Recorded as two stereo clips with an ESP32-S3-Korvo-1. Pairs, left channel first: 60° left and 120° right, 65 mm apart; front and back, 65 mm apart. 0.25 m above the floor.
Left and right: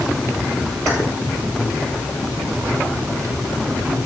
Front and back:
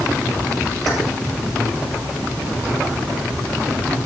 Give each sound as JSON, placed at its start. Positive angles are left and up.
{"t": 0.9, "sound": "keys jangling", "azimuth_deg": -85, "distance_m": 7.0}